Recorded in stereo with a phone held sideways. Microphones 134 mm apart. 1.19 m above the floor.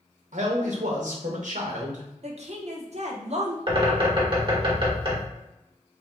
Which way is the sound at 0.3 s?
85° right.